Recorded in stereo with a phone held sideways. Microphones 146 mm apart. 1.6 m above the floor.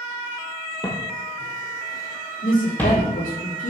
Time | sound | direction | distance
0.8 | footsteps | 30° left (ahead or behind) | 1.9 m
2.4 | a woman speaking | 75° left (ahead or behind) | 3 m